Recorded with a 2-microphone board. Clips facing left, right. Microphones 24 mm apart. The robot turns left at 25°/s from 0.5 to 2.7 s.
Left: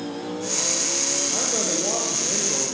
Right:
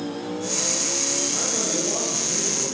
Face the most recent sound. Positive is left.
turn(degrees=115)